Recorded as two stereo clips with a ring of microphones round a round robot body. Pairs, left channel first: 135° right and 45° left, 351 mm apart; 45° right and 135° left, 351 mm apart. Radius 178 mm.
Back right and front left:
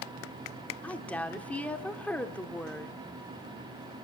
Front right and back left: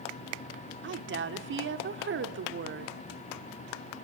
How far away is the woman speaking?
About 1.2 m.